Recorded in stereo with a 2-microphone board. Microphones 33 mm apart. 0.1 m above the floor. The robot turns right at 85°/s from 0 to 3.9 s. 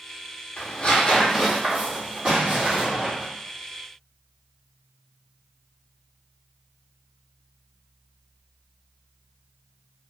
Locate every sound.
0.6 s tearing paper: 60° left (ahead or behind), 1.0 m; by 3.2 s 15° right (ahead or behind), 1.0 m
2.2 s an explosion: 60° right, 1.5 m; by 3.1 s 15° left, 1.5 m